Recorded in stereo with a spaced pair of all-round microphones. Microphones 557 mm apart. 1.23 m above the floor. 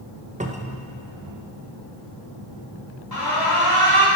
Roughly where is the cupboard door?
Centre.